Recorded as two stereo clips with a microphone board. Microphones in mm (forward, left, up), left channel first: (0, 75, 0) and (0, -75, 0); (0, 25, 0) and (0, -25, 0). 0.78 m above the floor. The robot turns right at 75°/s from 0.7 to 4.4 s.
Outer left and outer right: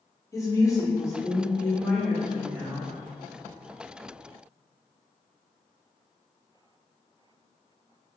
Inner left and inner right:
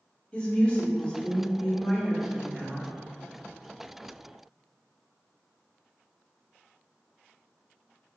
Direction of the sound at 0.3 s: 20° left (ahead or behind).